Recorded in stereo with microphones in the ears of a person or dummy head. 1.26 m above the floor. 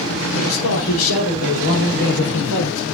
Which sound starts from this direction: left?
A man speaking, at 0.3 s.